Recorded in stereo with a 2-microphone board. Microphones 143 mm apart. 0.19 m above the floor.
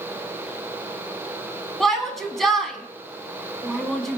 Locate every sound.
1.8 s a shout: centre (ahead or behind), 1.7 m